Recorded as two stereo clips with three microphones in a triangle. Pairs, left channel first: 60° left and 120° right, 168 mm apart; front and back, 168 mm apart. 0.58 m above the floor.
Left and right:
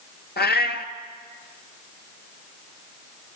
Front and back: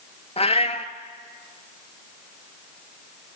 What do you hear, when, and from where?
0.4 s a cat meowing: 50° left, 1.8 m